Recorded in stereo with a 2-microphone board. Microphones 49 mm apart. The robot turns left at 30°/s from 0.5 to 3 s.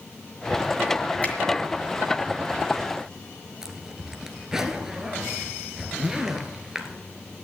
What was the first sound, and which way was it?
A finger snap, 30° left (ahead or behind).